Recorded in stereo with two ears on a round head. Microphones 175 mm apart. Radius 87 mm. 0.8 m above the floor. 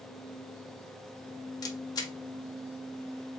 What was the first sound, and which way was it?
A camera shutter, 20° left (ahead or behind).